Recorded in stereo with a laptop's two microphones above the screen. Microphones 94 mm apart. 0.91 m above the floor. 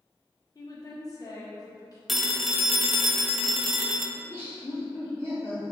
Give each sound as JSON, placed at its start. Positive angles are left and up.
{"t": 0.6, "sound": "a woman speaking", "side_deg": 40, "distance_m": 1.3}
{"t": 2.1, "sound": "a phone ringing", "side_deg": 0, "distance_m": 0.5}
{"t": 4.2, "sound": "laughter", "side_deg": 20, "distance_m": 1.1}